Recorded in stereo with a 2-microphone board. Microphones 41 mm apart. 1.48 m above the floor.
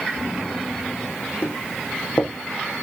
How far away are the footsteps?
About 4 m.